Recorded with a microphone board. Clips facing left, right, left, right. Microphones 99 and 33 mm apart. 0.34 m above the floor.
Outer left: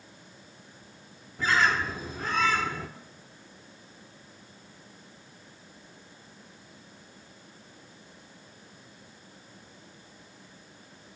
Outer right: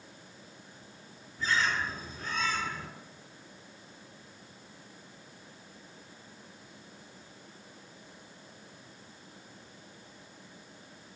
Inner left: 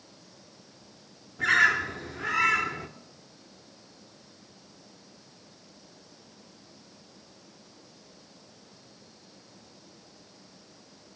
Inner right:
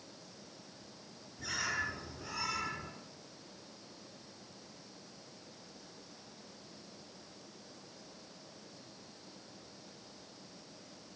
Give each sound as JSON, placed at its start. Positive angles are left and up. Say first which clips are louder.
{"t": 1.4, "sound": "a bird", "louder": "outer left 5 dB, inner left 15 dB", "side_deg": 90, "distance_m": 1.3}